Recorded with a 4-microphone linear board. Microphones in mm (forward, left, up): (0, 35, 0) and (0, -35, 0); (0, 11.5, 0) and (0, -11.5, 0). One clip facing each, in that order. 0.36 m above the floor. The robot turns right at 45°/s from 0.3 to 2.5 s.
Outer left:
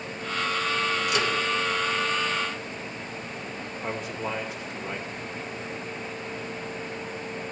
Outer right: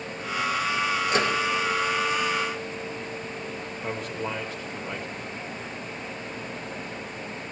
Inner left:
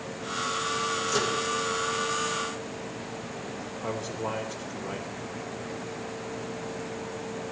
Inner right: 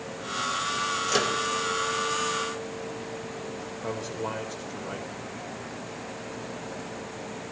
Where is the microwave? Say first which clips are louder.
Outer right 4 dB, inner right 3 dB; 40° right (ahead or behind), 1.2 m; by 1.4 s 45° right (ahead or behind), 1.2 m.